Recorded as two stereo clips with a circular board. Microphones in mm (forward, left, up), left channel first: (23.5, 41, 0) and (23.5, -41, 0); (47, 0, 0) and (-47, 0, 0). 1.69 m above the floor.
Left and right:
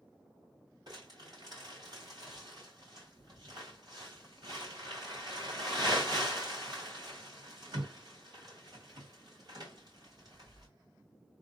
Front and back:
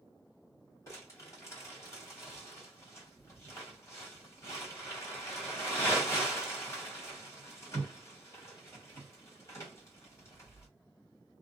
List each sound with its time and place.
0.9 s crumpling: 60° right, 2.0 m